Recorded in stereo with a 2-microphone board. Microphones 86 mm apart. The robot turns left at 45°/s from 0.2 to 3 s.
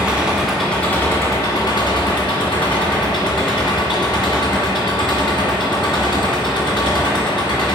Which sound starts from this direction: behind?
An engine running, at 0.0 s.